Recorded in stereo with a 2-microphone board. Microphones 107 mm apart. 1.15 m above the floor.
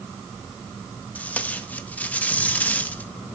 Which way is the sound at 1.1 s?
15° left (ahead or behind).